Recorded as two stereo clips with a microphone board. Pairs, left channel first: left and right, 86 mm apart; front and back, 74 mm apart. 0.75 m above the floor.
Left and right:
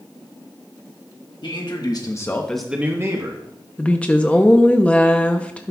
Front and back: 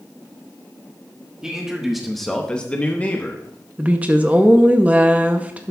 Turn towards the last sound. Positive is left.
turn(degrees=150)